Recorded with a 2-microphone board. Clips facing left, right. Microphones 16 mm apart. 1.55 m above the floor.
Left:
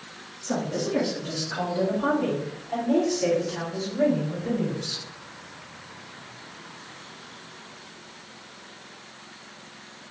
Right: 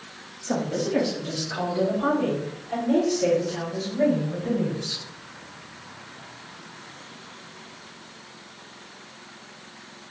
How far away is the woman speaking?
About 1.1 m.